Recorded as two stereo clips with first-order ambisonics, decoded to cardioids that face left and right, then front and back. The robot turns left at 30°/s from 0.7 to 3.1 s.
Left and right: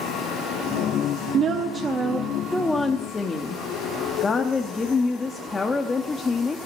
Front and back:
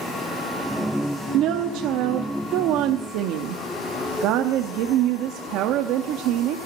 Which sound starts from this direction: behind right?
A woman speaking, at 1.3 s.